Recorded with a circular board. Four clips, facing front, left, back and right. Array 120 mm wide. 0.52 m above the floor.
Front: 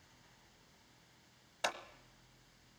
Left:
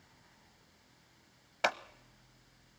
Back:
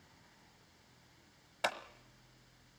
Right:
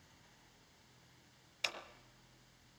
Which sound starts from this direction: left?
Scissors, at 1.6 s.